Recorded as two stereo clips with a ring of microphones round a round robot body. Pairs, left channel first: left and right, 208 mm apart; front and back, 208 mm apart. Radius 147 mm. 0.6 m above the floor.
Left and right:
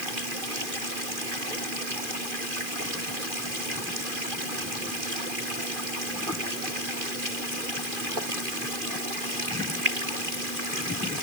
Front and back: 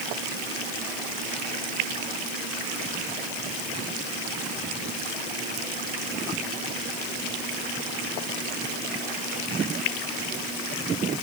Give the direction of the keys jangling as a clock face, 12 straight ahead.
No keys jangling in this recording.